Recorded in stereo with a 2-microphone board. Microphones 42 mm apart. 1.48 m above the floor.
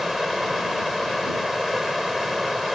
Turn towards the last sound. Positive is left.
turn(degrees=-5)  # may be behind; listen again after turning